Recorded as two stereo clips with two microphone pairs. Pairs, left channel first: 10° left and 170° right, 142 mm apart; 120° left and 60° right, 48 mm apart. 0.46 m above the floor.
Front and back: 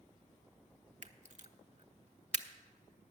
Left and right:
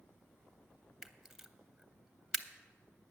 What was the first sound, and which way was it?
A camera shutter, 140° right.